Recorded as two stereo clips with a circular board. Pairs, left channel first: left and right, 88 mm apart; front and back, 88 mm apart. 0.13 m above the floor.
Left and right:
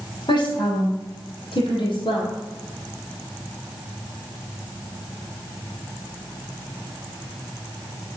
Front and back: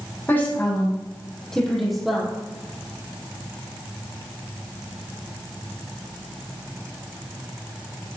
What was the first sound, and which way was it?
A woman speaking, 65° left.